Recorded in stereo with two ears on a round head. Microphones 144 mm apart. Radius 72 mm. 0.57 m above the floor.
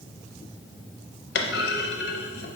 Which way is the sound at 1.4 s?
70° left (ahead or behind).